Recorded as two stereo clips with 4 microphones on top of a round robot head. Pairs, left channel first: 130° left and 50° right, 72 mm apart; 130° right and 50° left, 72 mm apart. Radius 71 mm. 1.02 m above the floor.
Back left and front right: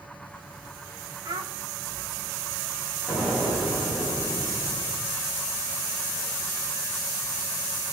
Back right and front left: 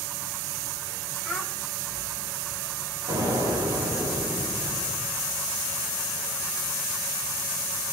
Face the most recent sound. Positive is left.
turn(degrees=50)